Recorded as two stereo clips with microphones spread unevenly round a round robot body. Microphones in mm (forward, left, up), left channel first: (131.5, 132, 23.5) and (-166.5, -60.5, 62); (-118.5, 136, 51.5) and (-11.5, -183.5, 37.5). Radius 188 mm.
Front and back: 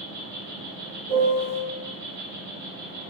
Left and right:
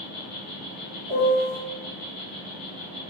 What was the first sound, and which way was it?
An insect, 150° left.